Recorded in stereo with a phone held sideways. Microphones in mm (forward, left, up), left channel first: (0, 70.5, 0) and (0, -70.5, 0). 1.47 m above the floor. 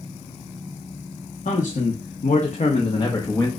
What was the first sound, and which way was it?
A man speaking, 75° left (ahead or behind).